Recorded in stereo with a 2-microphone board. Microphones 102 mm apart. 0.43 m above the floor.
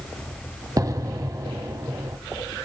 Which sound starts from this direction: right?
An explosion, at 0.8 s.